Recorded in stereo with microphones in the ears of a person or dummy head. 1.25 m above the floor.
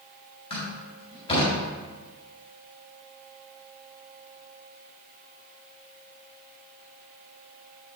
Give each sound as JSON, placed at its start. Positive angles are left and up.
{"t": 0.5, "sound": "a door slam", "side_deg": 25, "distance_m": 3.5}